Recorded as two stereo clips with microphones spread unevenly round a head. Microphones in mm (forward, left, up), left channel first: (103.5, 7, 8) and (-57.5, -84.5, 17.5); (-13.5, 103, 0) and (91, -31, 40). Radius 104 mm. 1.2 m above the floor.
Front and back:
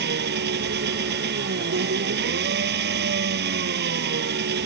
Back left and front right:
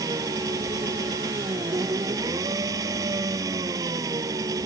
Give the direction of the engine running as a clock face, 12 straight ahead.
4 o'clock.